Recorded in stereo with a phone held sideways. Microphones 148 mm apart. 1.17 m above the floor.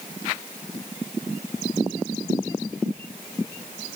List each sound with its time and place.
Only background noise.